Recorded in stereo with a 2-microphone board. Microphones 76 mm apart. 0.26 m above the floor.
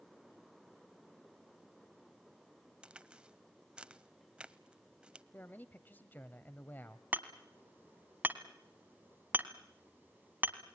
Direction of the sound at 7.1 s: 25° right (ahead or behind).